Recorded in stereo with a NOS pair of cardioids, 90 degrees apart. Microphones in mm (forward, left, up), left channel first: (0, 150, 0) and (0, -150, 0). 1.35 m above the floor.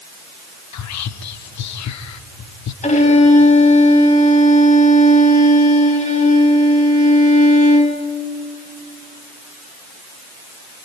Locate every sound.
0.7 s whispering: 65° left, 1.2 m
2.8 s a violin: 25° left, 4 m